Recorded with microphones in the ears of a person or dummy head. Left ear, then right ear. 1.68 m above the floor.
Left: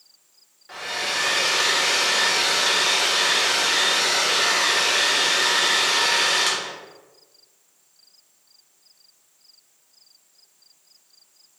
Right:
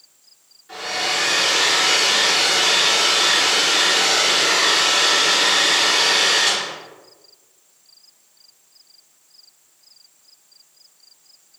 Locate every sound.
0.7 s a hair dryer: 30° left (ahead or behind), 1.1 m